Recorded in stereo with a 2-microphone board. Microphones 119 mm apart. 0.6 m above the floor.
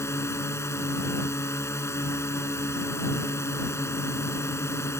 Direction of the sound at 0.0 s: 25° left (ahead or behind).